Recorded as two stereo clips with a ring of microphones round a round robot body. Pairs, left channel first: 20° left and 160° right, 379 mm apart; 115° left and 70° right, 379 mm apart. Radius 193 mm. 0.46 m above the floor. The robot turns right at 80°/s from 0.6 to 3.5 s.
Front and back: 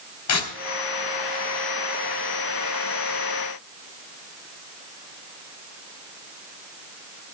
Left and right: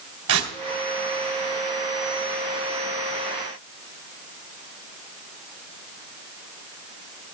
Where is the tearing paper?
20° right, 3 m.